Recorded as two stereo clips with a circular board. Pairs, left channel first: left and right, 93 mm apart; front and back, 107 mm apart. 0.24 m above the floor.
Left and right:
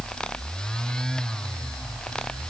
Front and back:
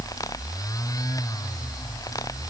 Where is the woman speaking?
I don't hear a woman speaking.